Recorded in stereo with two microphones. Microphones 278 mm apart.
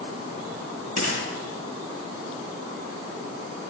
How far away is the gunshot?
About 6 m.